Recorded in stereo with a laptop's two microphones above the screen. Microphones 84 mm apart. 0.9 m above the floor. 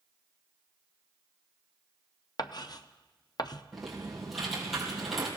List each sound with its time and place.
2.4 s writing: 55° left (ahead or behind), 0.5 m
3.7 s typing on a keyboard: 5° right (ahead or behind), 4 m